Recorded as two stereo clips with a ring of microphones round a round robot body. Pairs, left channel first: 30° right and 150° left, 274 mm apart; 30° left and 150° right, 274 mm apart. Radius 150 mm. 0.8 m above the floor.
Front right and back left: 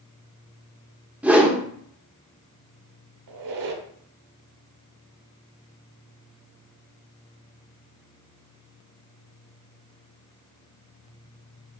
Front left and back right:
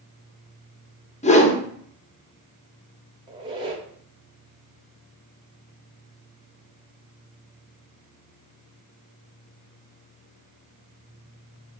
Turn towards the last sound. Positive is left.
turn(degrees=135)